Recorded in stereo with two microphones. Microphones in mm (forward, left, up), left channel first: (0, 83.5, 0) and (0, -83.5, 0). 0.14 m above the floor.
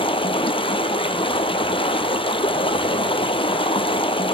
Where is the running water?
30° left (ahead or behind), 0.9 m.